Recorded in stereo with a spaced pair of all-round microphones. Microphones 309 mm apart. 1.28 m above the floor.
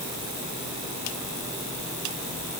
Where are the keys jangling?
No keys jangling in this recording.